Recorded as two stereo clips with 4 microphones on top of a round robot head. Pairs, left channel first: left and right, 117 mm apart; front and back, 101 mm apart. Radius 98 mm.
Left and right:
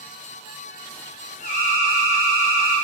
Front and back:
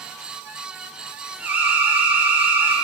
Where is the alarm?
105° left, 5 m.